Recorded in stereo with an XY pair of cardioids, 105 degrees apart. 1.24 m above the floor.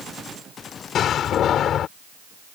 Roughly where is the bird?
I don't hear a bird.